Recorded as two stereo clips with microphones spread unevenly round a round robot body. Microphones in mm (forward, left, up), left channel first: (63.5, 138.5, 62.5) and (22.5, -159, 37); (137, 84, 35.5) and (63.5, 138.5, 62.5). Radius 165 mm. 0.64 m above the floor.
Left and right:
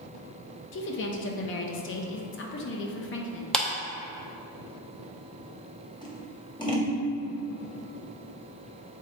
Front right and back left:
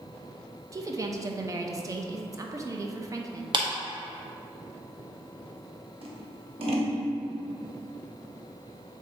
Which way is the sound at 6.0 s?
160° left.